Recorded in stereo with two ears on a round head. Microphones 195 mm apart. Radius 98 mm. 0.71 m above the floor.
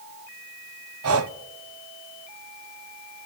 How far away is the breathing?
About 0.7 m.